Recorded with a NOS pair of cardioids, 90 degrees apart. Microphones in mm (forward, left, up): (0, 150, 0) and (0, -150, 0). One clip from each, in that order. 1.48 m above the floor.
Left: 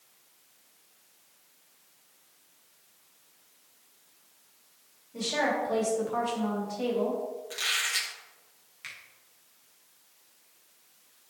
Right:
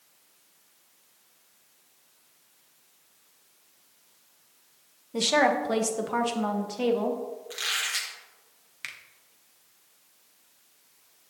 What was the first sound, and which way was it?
A woman speaking, 70° right.